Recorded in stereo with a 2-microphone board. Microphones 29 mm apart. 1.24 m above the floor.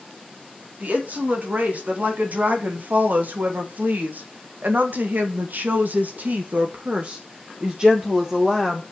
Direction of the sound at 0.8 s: 55° right (ahead or behind).